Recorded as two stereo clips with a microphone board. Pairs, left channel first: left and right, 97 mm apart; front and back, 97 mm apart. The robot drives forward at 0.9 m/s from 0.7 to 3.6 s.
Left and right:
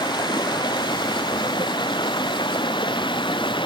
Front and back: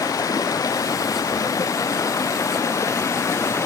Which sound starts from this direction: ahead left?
Running water, at 0.0 s.